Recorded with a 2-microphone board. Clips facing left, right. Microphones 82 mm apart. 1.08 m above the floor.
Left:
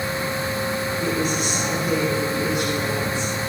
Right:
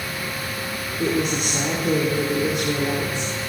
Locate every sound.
1.0 s a woman speaking: 80° right, 3.5 m